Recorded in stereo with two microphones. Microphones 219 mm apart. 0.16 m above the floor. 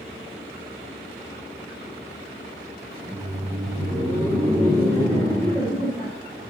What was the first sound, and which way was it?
Laughter, 10° left (ahead or behind).